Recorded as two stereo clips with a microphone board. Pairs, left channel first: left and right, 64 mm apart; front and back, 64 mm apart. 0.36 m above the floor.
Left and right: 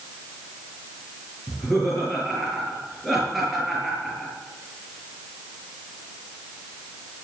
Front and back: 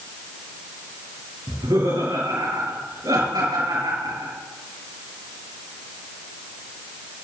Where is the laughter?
Straight behind, 5.5 m.